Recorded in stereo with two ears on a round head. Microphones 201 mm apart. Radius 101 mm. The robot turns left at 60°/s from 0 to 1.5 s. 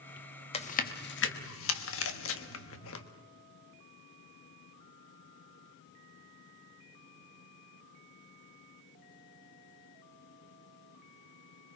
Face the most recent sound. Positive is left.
turn(degrees=65)  # may be behind; listen again after turning